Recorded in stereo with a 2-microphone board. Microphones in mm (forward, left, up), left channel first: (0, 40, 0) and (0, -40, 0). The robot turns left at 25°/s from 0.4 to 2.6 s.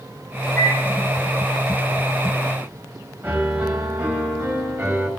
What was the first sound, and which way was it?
A microwave, 10° left (ahead or behind).